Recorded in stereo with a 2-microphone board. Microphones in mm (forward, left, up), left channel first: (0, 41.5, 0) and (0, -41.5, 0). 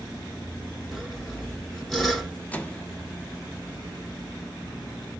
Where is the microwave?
20° left (ahead or behind), 1.0 m.